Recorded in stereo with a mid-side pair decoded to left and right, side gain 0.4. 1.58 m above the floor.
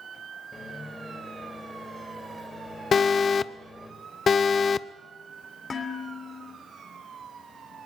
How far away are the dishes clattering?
About 3 m.